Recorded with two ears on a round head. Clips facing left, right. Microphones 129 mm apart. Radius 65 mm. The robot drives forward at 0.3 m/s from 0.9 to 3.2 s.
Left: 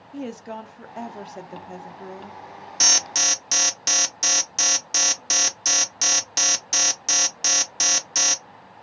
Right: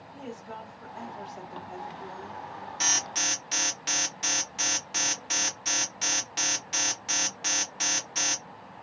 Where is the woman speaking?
75° left (ahead or behind), 0.6 m; by 2.4 s 45° left (ahead or behind), 0.8 m.